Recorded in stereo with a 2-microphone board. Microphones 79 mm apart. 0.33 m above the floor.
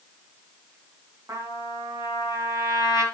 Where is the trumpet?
40° right (ahead or behind), 3.5 m.